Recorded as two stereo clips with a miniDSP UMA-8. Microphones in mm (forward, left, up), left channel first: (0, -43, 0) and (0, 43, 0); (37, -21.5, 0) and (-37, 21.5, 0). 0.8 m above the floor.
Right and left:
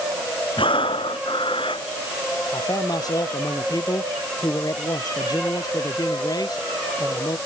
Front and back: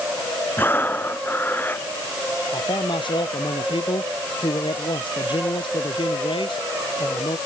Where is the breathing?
95° right.